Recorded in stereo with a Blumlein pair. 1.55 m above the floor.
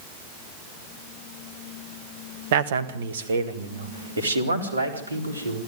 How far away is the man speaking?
About 1.6 m.